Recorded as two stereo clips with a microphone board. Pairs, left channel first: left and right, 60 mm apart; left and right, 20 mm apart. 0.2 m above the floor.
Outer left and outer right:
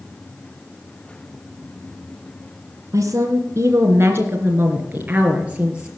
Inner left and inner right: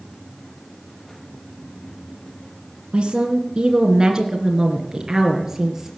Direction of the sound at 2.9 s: 60° right (ahead or behind).